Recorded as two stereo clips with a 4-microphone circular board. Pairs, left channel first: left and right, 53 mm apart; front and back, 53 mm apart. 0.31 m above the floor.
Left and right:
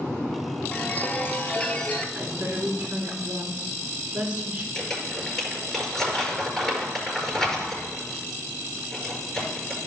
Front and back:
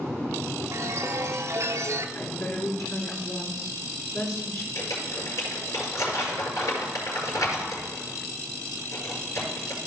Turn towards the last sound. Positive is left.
turn(degrees=5)